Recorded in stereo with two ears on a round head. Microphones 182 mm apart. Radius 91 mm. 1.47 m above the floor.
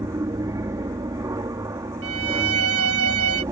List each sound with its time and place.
0.0 s an aircraft: 15° right (ahead or behind)
2.0 s a violin: 80° right